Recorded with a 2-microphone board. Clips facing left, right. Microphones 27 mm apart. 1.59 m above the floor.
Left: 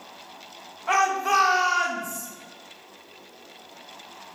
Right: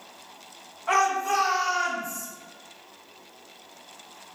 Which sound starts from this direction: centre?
A shout, at 0.9 s.